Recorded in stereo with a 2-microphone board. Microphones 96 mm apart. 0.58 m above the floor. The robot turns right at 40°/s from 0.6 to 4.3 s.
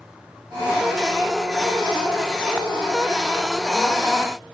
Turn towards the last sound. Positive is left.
No sound to turn to.